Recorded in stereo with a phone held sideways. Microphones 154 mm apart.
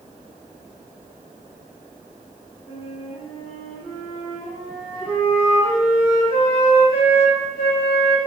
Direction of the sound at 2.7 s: 25° left (ahead or behind).